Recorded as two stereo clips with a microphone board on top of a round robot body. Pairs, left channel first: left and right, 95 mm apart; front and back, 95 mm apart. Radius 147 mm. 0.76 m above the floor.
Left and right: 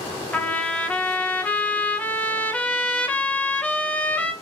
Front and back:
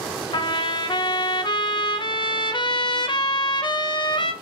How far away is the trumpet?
About 0.6 m.